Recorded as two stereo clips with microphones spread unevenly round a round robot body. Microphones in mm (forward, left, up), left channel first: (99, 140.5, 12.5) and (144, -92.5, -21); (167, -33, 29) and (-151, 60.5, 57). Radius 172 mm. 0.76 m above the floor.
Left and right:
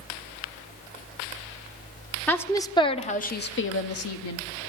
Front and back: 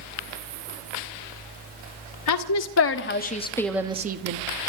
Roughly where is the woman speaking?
Ahead.